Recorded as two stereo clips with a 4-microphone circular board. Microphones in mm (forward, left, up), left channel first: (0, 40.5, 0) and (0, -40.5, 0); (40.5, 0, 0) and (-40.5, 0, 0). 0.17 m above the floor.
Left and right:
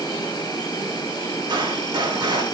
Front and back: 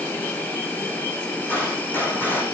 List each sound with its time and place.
0.0 s an insect: 65° left, 3 m
1.5 s a gunshot: 65° right, 5 m